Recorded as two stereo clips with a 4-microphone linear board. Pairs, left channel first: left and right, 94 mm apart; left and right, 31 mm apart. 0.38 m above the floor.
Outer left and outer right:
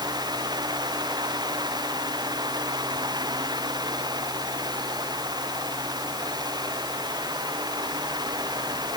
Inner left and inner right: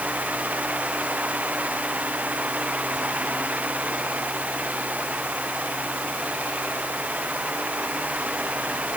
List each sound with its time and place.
Only background noise.